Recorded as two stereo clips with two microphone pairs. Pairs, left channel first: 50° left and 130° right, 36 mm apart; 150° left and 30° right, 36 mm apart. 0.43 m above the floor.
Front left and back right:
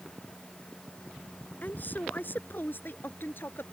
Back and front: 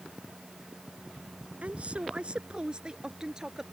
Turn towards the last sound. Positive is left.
turn(degrees=45)